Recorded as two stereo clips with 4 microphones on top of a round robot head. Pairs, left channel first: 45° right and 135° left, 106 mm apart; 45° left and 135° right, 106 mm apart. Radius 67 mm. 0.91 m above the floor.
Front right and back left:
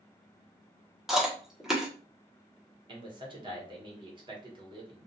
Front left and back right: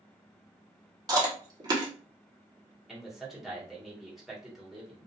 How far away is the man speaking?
About 1.2 m.